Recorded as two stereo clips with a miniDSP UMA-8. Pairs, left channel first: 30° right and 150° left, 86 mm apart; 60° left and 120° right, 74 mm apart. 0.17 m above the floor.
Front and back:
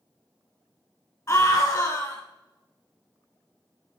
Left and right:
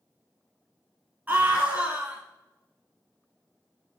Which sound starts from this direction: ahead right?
A scream, at 1.3 s.